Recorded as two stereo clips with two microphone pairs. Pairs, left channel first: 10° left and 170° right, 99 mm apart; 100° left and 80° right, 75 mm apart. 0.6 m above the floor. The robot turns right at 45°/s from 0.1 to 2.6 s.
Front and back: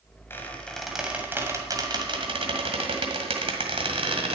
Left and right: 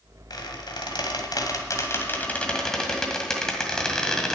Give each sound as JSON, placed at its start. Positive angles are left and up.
{"t": 0.3, "sound": "a squeak", "azimuth_deg": 80, "distance_m": 1.7}